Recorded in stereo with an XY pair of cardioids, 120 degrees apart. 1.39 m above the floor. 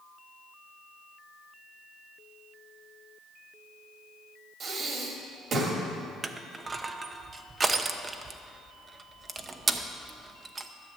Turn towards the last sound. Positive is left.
turn(degrees=-25)